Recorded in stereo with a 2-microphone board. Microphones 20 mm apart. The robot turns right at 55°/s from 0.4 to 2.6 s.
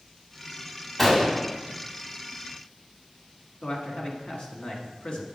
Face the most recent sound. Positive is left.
turn(degrees=40)  # may be behind; listen again after turning